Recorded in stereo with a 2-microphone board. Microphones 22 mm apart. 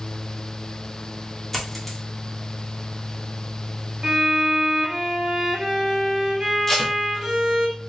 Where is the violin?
25° right (ahead or behind), 1.9 m.